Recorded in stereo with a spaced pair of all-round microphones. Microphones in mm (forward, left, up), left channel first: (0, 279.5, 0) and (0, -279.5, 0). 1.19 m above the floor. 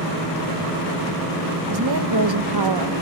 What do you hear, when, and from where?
1.7 s a woman speaking: 40° right (ahead or behind), 1.3 m